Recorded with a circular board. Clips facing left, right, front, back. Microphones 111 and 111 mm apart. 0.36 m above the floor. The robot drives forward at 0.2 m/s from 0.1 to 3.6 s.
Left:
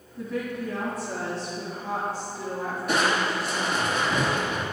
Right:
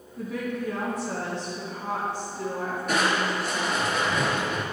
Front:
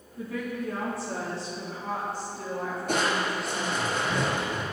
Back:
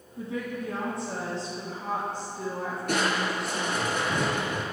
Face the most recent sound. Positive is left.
turn(degrees=-175)